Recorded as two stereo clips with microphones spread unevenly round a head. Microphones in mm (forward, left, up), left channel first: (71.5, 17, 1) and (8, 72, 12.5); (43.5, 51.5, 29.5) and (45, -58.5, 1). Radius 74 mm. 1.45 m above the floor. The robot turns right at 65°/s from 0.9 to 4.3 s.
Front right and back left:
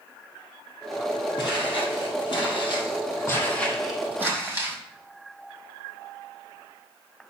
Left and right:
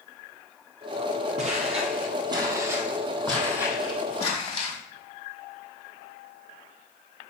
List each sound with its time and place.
1.4 s footsteps: 80° right, 2 m; by 4.8 s 75° left, 4 m